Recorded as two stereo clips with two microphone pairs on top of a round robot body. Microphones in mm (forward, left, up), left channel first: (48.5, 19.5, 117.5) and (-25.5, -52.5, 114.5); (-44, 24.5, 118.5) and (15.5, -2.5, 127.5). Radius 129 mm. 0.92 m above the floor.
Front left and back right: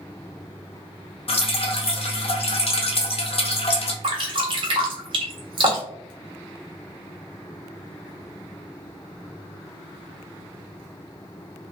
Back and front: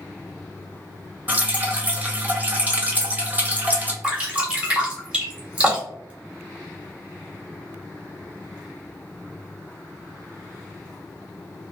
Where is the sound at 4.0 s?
95° right, 1.7 m.